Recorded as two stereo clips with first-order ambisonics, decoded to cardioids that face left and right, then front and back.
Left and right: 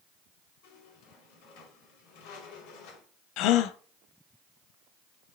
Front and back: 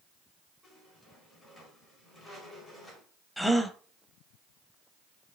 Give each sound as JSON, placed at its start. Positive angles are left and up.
{"t": 0.6, "sound": "a squeak", "azimuth_deg": 80, "distance_m": 4.5}
{"t": 3.4, "sound": "a gasp", "azimuth_deg": 90, "distance_m": 0.8}